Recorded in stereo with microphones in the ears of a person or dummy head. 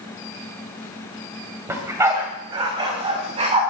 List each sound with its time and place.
1.7 s a dog barking: 10° right (ahead or behind), 2 m; by 3.6 s 35° right (ahead or behind), 3 m